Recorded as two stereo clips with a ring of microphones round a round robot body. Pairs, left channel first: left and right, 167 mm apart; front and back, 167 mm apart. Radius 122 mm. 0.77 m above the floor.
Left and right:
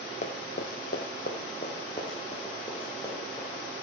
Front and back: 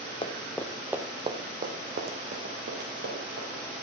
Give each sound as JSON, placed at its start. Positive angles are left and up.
{"t": 0.2, "sound": "running footsteps", "azimuth_deg": 55, "distance_m": 1.4}